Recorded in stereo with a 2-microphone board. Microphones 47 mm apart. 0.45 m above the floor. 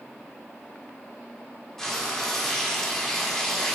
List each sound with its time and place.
1.8 s frying: 10° left (ahead or behind), 1.2 m